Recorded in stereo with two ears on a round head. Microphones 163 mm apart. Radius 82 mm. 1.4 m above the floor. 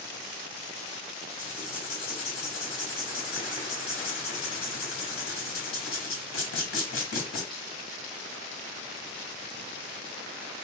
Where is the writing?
85° left, 2.0 m.